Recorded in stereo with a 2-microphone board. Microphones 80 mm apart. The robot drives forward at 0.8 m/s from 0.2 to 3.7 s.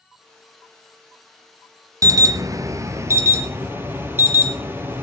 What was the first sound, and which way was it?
An alarm, 45° right (ahead or behind).